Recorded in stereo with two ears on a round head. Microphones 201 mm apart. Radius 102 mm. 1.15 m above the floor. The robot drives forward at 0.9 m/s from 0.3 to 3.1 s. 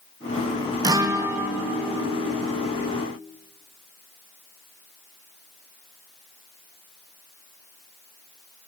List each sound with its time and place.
0.8 s a guitar: 15° right (ahead or behind), 0.9 m; by 3.0 s 5° right (ahead or behind), 3 m